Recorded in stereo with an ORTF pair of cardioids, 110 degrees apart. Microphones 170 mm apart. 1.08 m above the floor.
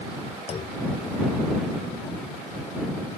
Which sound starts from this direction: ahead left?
A clunk, at 0.5 s.